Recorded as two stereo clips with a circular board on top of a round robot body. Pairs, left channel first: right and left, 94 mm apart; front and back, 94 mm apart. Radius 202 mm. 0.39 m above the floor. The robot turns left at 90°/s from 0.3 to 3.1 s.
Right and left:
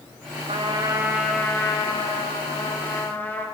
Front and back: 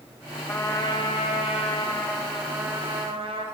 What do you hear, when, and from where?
0.5 s a trumpet: 75° left, 3 m; by 3.5 s 160° right, 3 m